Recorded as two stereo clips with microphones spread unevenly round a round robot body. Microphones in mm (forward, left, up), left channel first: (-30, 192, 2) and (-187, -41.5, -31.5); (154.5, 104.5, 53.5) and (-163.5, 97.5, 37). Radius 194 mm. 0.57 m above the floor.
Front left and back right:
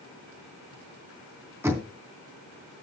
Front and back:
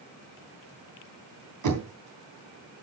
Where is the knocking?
155° left, 3 m.